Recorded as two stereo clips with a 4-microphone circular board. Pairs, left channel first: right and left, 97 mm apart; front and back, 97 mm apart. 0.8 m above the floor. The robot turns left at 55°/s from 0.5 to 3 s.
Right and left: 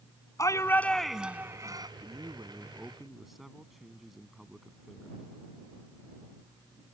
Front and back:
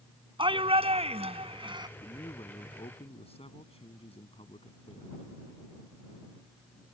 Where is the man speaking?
55° left; by 5.2 s straight ahead.